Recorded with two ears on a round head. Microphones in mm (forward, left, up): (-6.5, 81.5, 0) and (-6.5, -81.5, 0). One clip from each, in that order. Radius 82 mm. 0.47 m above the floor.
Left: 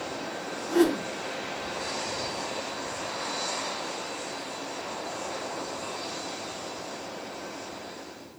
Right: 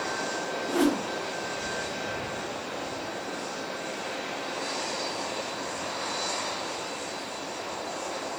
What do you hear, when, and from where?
0.7 s a whoosh: 35° left (ahead or behind), 2.0 m